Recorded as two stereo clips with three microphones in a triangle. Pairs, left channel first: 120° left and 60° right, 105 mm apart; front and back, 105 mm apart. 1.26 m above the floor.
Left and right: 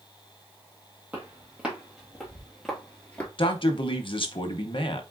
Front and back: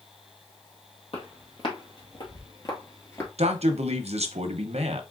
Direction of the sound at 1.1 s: 15° left.